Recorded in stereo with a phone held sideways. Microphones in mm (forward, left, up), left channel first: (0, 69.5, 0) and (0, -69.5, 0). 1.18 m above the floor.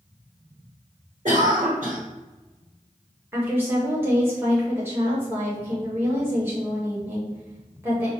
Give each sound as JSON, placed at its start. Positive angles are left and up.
{"t": 1.2, "sound": "a cough", "side_deg": -60, "distance_m": 1.4}
{"t": 3.3, "sound": "a woman speaking", "side_deg": -15, "distance_m": 1.6}